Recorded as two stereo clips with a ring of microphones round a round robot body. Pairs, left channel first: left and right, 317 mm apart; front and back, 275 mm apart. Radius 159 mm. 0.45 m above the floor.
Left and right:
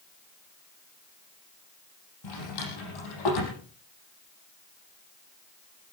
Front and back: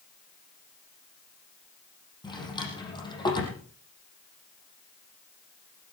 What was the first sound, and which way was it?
A drawer, 75° left.